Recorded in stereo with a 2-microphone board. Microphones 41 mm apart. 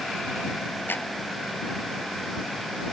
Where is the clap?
60° left (ahead or behind).